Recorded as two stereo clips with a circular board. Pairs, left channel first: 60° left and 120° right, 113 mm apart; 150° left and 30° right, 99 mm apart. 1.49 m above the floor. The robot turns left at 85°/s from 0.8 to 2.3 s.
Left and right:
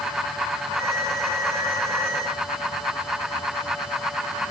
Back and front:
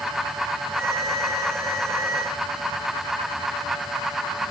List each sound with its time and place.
Only background noise.